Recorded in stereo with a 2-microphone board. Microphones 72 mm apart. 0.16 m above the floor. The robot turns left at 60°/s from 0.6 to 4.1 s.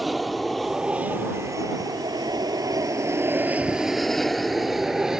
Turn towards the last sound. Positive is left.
turn(degrees=-10)  # may be behind; listen again after turning